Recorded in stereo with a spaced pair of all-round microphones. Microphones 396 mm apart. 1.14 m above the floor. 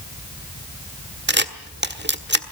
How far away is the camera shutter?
About 1.5 m.